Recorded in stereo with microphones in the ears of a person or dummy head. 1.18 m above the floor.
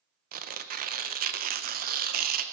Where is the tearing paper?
45° right (ahead or behind), 0.7 m.